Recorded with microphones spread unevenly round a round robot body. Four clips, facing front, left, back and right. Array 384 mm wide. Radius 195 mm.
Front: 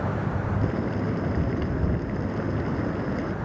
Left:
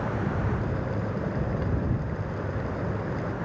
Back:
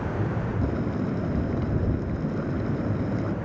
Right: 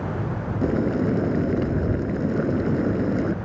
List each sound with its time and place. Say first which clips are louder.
0.6 s boiling: right 9 dB, even; 95° right